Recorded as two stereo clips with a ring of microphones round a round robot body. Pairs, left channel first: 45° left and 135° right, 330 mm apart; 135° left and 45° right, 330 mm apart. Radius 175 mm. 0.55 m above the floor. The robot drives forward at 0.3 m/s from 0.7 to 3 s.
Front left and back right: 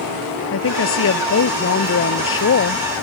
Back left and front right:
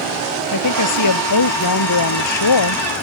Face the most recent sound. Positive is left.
turn(degrees=100)